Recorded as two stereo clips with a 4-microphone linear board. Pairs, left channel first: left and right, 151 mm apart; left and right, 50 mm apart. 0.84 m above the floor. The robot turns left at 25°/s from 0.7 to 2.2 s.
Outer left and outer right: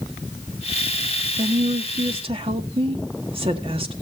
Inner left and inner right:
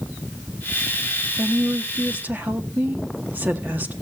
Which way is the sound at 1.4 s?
55° right (ahead or behind).